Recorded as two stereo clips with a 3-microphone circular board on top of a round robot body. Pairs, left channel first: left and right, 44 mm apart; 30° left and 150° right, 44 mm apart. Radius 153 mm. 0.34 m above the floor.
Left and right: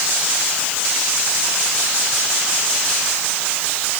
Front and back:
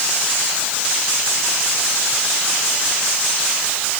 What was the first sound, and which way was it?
Only background noise.